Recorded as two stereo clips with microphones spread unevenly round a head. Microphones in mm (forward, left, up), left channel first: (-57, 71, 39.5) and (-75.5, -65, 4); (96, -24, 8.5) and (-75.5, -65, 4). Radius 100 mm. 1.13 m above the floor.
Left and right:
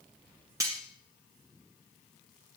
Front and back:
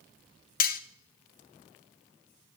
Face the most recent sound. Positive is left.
turn(degrees=-20)